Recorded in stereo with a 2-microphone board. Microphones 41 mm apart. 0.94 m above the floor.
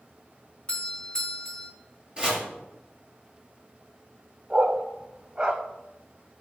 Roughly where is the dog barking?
Right.